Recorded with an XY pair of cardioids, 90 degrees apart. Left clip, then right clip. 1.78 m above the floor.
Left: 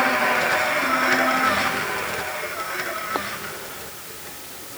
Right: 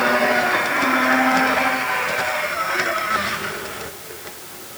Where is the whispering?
No whispering in this recording.